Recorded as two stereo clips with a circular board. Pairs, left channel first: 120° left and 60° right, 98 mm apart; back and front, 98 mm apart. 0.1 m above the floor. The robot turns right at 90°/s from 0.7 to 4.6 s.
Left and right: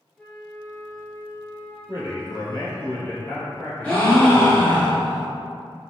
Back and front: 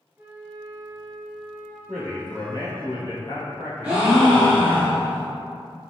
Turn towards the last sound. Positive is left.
turn(degrees=130)